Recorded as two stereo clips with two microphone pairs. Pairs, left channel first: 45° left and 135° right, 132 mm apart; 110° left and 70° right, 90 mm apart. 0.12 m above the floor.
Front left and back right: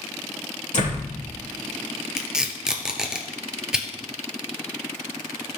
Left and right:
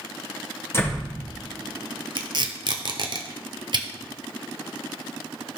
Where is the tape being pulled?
50° right, 0.9 m.